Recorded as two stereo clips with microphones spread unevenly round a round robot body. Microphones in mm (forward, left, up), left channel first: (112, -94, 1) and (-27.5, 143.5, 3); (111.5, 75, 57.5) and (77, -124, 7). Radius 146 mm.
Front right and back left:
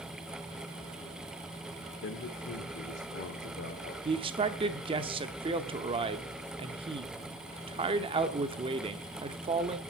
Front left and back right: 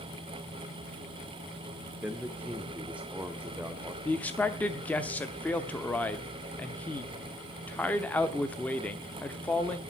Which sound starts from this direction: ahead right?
A man speaking, at 2.0 s.